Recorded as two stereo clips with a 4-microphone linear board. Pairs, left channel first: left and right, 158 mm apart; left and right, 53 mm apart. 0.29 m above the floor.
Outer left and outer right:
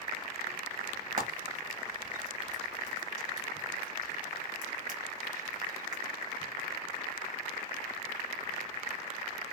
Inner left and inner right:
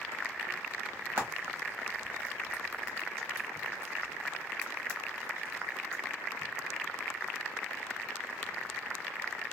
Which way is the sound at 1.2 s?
50° right (ahead or behind).